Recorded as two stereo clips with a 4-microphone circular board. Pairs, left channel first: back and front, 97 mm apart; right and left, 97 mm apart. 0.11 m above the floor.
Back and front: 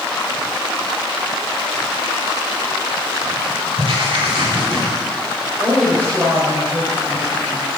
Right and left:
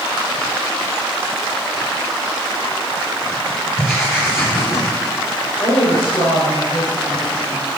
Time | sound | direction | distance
3.8 | writing | 25° right | 4 m
5.6 | a woman speaking | 75° right | 3.5 m